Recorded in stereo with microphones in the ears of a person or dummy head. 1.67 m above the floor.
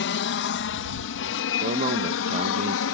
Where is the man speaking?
30° right (ahead or behind).